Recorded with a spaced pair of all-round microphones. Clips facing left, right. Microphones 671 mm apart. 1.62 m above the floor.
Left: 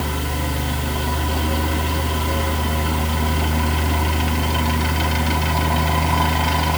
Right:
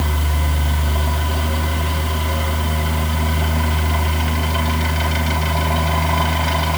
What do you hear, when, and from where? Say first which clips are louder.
0.0 s a fan: left 1 dB; 10° right (ahead or behind), 2.0 m